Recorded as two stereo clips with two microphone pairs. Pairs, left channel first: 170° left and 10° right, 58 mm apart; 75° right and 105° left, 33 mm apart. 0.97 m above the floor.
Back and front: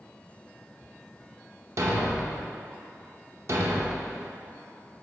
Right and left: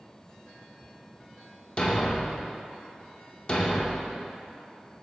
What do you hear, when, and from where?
1.8 s a thud: 30° right, 0.7 m